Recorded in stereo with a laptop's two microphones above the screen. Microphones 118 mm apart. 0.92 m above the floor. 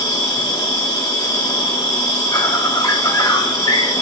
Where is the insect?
35° left (ahead or behind), 3.5 m.